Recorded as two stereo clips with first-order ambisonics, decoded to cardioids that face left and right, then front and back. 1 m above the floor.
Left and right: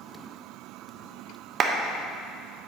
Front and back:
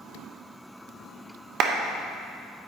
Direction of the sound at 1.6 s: 140° right.